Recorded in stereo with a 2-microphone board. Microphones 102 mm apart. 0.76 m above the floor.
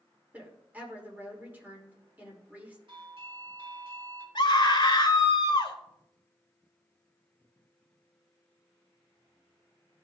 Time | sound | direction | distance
0.3 | a woman speaking | 15° right (ahead or behind) | 2.5 m
2.9 | a doorbell | 60° right (ahead or behind) | 2.5 m
4.3 | a scream | 45° left (ahead or behind) | 2.5 m